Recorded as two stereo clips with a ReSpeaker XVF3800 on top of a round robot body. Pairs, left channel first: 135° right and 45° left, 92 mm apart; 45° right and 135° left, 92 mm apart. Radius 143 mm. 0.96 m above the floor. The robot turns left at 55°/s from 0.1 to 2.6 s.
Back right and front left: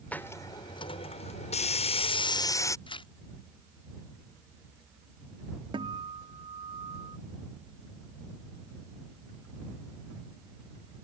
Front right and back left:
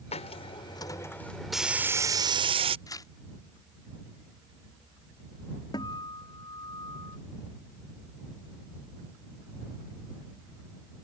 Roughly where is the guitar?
Ahead.